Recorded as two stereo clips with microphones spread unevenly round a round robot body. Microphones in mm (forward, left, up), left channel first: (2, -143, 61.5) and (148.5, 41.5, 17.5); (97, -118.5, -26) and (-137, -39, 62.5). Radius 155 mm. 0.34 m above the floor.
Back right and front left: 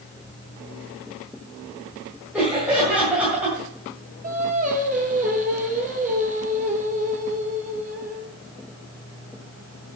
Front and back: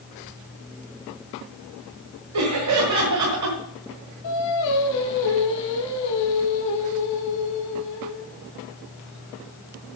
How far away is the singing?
About 3 m.